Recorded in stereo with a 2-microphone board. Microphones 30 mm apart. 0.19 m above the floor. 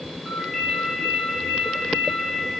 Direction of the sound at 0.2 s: 10° left (ahead or behind).